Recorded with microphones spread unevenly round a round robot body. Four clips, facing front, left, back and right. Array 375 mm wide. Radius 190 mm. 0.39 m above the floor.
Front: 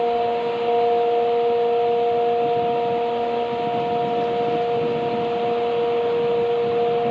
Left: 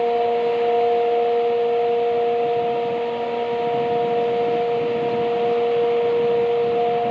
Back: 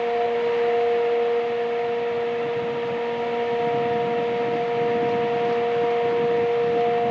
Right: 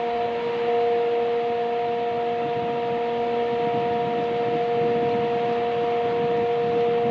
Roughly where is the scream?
No scream in this recording.